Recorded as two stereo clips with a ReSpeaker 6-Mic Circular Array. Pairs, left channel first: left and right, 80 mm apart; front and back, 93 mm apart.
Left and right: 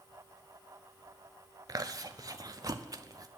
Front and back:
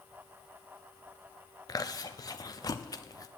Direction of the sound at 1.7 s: 50° right.